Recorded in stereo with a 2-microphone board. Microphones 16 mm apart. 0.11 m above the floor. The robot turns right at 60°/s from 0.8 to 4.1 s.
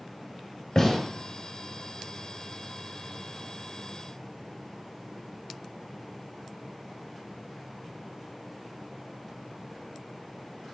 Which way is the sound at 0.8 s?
25° left (ahead or behind).